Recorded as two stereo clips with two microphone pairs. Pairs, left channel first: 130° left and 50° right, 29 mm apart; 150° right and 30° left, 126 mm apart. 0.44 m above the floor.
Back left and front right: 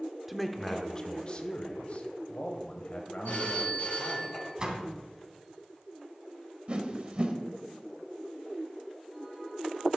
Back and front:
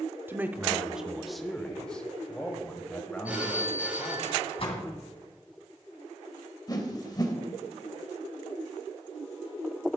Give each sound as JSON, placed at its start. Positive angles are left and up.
{"t": 0.3, "sound": "a man speaking", "azimuth_deg": 15, "distance_m": 0.8}
{"t": 3.2, "sound": "a phone ringing", "azimuth_deg": 105, "distance_m": 4.0}
{"t": 4.6, "sound": "a door slam", "azimuth_deg": -110, "distance_m": 2.5}
{"t": 6.7, "sound": "a whoosh", "azimuth_deg": -95, "distance_m": 1.5}